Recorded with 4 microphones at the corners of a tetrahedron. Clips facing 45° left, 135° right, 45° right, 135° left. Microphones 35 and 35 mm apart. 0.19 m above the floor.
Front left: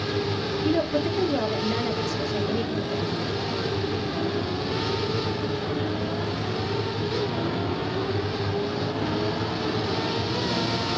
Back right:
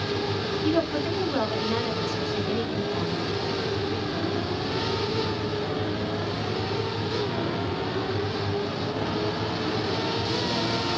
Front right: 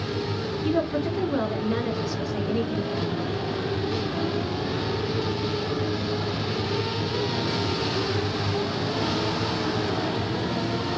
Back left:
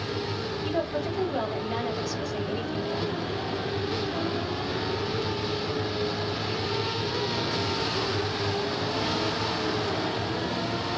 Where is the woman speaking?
120° right, 1.5 m.